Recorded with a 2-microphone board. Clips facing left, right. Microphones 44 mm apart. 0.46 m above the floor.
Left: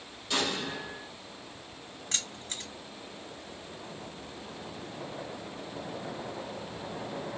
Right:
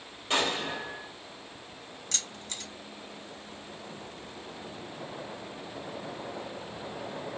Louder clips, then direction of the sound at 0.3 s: Right 3 dB; 40° right (ahead or behind).